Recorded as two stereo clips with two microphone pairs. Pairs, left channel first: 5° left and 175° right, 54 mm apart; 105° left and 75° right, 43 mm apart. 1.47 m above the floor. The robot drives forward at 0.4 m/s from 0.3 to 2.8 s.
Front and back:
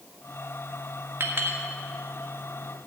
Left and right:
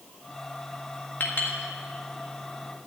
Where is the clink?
140° left, 1.6 m; by 1.6 s 145° left, 1.8 m.